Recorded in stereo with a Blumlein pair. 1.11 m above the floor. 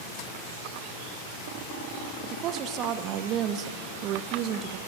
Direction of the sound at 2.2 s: 35° right.